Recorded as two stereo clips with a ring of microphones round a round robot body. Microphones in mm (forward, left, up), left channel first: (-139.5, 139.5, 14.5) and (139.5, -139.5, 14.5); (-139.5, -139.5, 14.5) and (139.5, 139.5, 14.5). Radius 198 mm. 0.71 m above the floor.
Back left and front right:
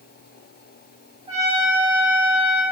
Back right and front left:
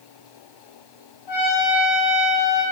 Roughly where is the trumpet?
Behind right.